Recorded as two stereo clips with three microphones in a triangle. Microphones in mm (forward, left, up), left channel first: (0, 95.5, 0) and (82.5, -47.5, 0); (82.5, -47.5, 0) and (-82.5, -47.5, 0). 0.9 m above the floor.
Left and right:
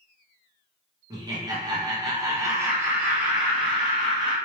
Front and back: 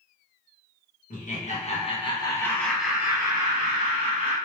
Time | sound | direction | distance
1.1 | laughter | straight ahead | 1.1 m